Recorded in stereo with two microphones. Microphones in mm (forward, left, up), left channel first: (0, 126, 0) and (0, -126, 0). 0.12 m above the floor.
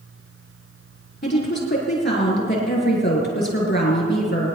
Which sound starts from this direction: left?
A woman speaking, at 1.2 s.